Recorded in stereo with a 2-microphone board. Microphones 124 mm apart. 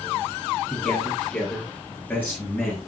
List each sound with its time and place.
0.7 s a man speaking: 10° left (ahead or behind), 9 m; by 2.8 s 20° left (ahead or behind), 8 m